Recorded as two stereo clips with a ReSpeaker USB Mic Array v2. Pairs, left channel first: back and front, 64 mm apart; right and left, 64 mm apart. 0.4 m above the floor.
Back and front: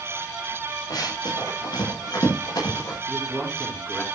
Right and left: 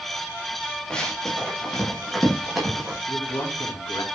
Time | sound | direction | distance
0.9 | running footsteps | 170° right | 8 m
3.1 | a man speaking | 105° right | 5 m